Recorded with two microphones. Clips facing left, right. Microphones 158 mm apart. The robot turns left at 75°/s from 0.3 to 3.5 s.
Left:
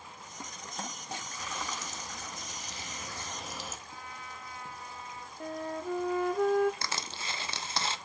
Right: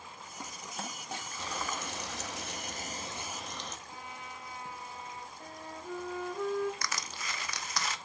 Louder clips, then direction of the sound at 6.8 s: Left 1 dB; 30° left (ahead or behind).